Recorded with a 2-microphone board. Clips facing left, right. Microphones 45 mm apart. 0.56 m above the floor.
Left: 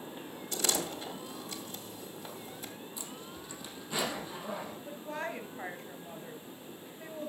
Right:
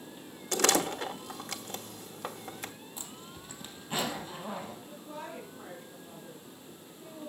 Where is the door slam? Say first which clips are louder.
Right 7 dB; 65° right (ahead or behind), 0.9 m.